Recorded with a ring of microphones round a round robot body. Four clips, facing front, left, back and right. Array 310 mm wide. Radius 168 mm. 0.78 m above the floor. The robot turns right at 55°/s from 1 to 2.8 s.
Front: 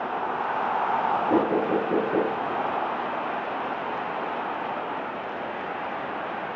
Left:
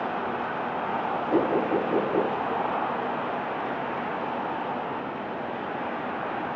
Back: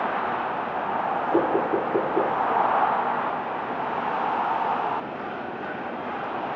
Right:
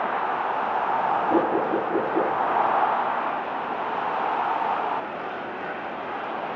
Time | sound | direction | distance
1.3 | knocking | 10° right | 9.5 m